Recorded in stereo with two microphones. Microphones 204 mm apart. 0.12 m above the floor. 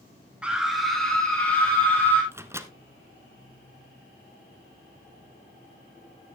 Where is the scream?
5° right (ahead or behind), 1.3 m; by 2.2 s 10° left (ahead or behind), 3.5 m.